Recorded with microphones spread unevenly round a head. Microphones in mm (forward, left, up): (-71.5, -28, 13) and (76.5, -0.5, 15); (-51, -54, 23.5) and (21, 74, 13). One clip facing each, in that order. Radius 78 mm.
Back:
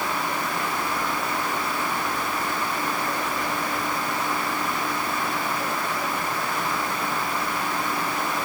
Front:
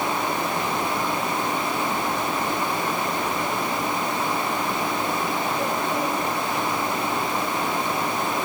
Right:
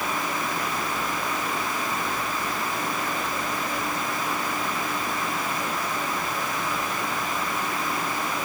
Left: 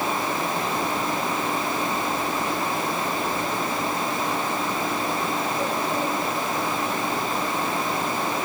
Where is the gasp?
I don't hear a gasp.